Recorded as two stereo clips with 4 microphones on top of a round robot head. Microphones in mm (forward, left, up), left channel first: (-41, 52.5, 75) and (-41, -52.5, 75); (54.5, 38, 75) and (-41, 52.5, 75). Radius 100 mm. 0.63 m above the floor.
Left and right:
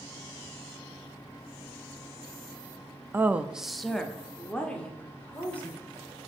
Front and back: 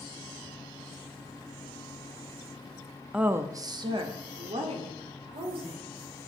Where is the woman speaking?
125° right, 0.7 m; by 5.8 s 165° left, 2.5 m.